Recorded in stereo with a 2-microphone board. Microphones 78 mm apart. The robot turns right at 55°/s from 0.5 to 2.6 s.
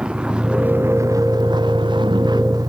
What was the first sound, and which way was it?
A vehicle, 170° right.